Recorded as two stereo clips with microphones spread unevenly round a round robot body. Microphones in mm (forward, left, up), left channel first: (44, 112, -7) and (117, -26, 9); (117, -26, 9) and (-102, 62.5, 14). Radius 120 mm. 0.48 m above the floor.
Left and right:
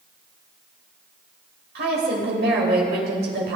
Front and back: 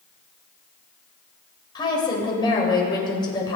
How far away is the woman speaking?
About 2 m.